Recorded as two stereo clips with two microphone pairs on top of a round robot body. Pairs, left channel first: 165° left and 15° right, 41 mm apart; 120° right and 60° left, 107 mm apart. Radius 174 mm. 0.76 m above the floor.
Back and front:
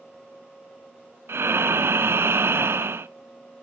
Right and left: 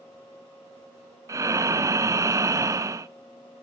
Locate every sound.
1.3 s breathing: straight ahead, 0.5 m